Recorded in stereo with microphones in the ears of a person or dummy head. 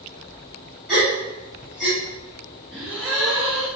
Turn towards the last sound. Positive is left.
turn(degrees=-5)  # may be behind; listen again after turning